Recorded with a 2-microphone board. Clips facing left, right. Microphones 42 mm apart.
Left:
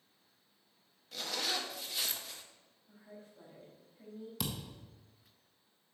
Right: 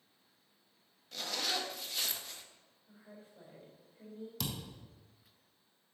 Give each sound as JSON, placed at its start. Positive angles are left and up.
{"t": 1.1, "sound": "a zipper", "side_deg": 0, "distance_m": 0.8}
{"t": 2.9, "sound": "a woman speaking", "side_deg": -25, "distance_m": 3.5}
{"t": 4.4, "sound": "a thud", "side_deg": 5, "distance_m": 1.4}